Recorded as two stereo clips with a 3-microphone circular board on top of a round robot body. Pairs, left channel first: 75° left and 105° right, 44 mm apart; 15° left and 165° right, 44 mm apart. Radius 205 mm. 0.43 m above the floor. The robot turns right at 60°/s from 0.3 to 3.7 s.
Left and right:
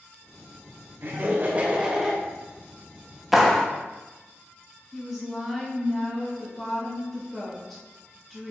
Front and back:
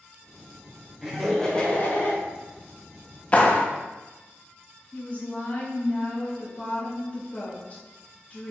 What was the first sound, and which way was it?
Laughter, 90° right.